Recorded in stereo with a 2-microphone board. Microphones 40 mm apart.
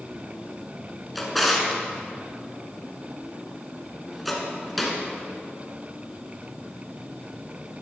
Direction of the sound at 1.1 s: Centre (ahead or behind).